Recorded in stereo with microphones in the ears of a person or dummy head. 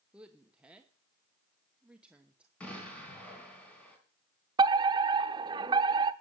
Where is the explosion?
5° left (ahead or behind), 4 m.